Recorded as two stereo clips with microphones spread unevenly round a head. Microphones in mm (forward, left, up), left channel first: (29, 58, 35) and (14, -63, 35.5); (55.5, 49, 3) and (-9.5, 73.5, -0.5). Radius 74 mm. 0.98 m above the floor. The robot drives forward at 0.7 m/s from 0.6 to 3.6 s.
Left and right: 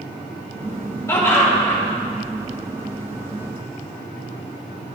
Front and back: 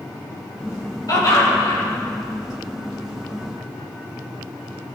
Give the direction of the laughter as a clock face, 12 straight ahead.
12 o'clock.